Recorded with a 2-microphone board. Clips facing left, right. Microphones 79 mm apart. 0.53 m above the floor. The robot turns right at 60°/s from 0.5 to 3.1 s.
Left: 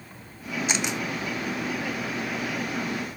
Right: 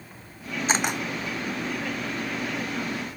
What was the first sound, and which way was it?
A camera shutter, 40° right (ahead or behind).